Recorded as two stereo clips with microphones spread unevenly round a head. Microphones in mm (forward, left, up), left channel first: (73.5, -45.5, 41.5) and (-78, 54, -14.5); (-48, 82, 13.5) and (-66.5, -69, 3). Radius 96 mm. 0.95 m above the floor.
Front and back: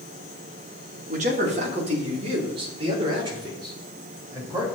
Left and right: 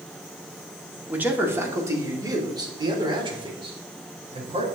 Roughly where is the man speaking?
Behind.